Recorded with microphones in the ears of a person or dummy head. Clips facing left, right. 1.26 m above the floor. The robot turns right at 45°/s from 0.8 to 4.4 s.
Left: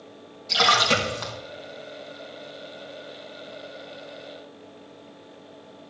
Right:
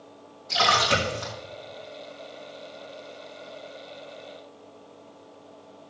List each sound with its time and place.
0.5 s a splash: 35° left (ahead or behind), 3 m; by 1.3 s 60° left (ahead or behind), 3 m